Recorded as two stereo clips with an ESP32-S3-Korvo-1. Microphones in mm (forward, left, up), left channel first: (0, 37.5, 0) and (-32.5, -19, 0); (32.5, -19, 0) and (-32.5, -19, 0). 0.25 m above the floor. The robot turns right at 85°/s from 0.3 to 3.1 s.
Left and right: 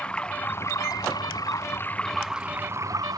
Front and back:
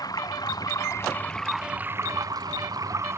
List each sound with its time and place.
0.0 s running water: 15° right; by 3.2 s 135° right